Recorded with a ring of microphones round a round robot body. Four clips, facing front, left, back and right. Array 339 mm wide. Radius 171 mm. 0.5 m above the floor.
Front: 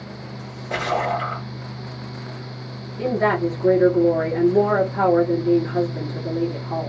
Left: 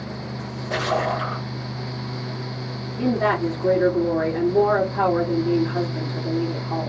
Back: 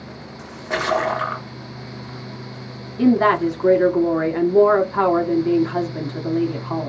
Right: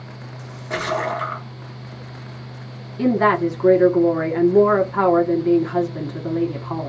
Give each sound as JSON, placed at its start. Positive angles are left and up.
{"t": 0.4, "sound": "a splash", "azimuth_deg": -170, "distance_m": 1.6}
{"t": 3.0, "sound": "a woman speaking", "azimuth_deg": -135, "distance_m": 0.9}